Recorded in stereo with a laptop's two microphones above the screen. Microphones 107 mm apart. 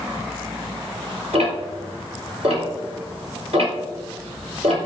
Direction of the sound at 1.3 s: 80° right.